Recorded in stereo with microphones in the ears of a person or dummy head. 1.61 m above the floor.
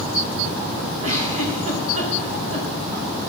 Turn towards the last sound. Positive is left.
turn(degrees=-45)  # may be behind; listen again after turning